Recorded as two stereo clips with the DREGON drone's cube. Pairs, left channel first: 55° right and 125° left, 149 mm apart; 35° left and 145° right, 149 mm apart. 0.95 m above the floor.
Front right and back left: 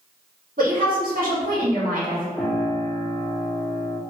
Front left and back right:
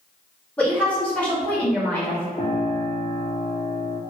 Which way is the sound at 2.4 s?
20° left.